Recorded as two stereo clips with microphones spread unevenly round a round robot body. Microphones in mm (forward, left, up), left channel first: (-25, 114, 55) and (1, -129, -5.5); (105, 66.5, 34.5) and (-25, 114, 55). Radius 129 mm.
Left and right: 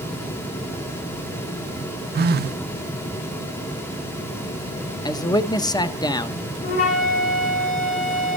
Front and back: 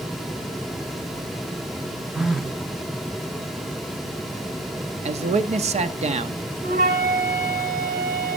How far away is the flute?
About 2.5 m.